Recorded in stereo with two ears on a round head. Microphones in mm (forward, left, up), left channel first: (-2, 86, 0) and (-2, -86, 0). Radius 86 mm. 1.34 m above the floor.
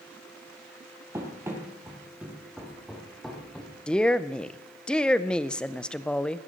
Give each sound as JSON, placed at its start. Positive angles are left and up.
{"t": 1.1, "sound": "running footsteps", "side_deg": -15, "distance_m": 2.5}
{"t": 3.9, "sound": "a woman speaking", "side_deg": 5, "distance_m": 0.5}